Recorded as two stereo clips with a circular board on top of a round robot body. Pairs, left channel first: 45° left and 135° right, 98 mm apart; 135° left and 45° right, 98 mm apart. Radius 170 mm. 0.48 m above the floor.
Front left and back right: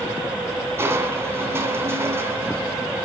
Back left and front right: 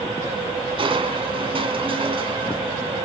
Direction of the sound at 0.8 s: 70° right.